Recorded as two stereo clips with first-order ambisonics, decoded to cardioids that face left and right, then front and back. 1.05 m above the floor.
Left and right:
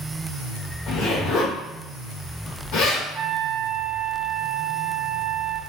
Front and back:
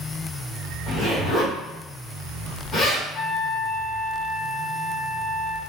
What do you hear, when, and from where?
0.9 s a zipper: 65° left, 1.5 m
3.1 s a trumpet: 30° right, 1.0 m